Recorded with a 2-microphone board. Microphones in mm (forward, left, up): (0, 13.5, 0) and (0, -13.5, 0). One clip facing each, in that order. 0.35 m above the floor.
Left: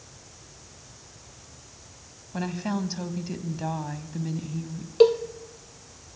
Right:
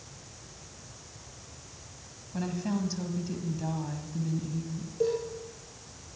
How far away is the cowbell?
About 1.8 m.